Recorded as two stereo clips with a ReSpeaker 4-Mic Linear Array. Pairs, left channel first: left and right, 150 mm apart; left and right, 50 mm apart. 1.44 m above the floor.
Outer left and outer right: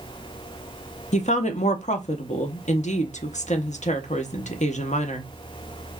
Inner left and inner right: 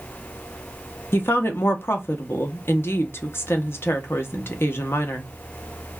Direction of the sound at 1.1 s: 55° left (ahead or behind).